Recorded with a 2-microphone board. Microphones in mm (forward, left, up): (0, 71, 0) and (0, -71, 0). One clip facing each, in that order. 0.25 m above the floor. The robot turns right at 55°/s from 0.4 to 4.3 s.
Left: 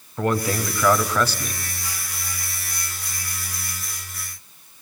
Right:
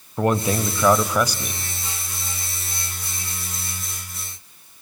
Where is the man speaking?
20° right (ahead or behind), 1.0 m; by 1.6 s 10° right (ahead or behind), 1.0 m.